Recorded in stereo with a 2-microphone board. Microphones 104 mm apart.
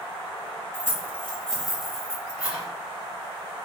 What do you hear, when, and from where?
0.7 s keys jangling: 20° left (ahead or behind), 0.9 m; by 2.6 s 10° right (ahead or behind), 1.7 m